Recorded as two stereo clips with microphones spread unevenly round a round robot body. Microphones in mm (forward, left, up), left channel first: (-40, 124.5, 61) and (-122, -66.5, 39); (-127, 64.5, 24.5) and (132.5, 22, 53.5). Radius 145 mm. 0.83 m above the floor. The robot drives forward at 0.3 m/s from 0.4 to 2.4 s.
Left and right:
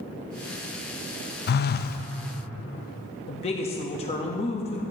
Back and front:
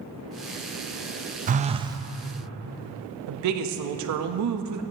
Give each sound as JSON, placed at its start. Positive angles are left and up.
{"t": 1.5, "sound": "a phone buzzing", "azimuth_deg": 45, "distance_m": 0.5}
{"t": 3.3, "sound": "a woman speaking", "azimuth_deg": 0, "distance_m": 0.9}